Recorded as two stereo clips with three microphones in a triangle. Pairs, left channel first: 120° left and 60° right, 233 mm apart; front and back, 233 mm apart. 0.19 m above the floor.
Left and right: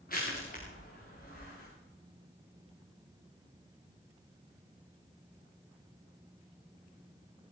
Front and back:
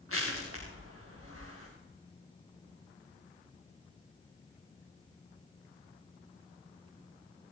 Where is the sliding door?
I don't hear a sliding door.